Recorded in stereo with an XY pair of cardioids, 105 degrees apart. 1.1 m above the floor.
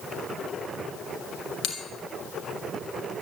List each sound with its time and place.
1.6 s a bell: 70° left, 3 m